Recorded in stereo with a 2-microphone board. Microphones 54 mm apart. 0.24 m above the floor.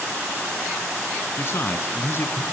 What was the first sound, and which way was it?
A man speaking, 55° left (ahead or behind).